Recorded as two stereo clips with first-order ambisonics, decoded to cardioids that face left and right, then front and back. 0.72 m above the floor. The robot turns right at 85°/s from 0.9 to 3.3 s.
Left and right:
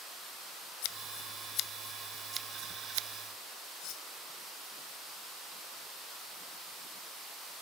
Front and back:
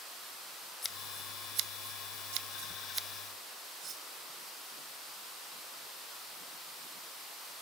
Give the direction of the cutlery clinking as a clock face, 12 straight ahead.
8 o'clock.